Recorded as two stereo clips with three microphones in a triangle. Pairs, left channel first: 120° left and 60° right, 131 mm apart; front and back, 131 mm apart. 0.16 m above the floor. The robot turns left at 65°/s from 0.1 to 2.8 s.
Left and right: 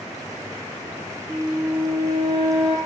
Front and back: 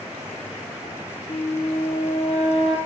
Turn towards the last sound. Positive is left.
turn(degrees=-45)